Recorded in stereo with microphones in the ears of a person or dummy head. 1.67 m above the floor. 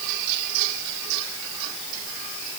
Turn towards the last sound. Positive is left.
No sound to turn to.